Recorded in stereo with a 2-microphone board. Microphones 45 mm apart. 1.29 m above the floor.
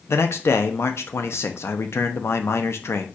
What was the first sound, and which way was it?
A man speaking, 70° left (ahead or behind).